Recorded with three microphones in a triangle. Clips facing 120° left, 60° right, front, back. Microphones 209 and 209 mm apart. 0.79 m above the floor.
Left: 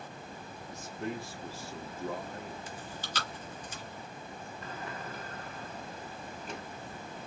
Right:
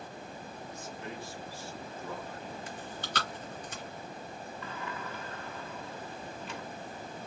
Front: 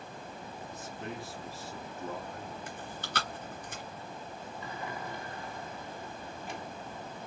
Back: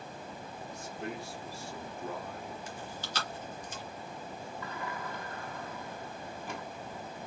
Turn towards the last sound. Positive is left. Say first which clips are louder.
# even, front 1 dB
turn(degrees=70)